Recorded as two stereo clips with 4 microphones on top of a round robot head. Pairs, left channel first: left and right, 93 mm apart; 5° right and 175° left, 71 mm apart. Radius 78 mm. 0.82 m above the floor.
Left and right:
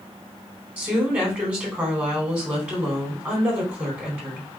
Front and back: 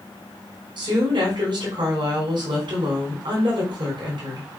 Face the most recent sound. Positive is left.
turn(degrees=-165)